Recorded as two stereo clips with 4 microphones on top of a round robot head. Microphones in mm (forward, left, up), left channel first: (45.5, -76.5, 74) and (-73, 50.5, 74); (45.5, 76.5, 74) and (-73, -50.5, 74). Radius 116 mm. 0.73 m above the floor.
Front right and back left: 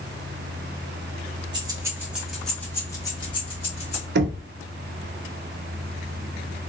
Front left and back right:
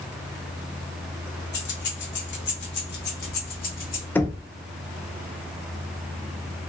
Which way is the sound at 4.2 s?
125° left.